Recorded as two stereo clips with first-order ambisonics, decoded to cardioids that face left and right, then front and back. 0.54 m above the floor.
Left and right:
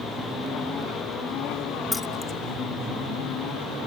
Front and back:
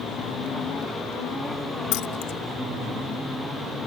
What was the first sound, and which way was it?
Keys jangling, 15° left.